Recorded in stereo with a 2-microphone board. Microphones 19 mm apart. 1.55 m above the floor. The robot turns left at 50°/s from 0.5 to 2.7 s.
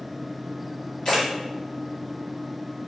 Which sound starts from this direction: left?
A camera shutter, at 1.1 s.